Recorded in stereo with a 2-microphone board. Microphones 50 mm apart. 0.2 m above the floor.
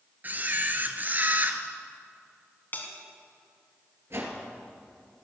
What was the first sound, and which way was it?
A camera shutter, 35° right (ahead or behind).